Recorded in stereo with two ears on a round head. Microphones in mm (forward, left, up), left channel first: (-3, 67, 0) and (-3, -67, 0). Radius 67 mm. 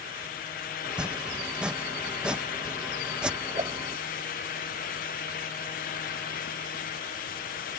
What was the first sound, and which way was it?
Chopping, 5° right (ahead or behind).